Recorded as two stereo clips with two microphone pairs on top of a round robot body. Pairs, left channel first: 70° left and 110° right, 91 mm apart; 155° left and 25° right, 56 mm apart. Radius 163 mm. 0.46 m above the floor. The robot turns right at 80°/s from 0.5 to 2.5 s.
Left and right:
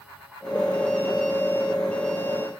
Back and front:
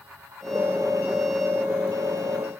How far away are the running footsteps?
No running footsteps in this recording.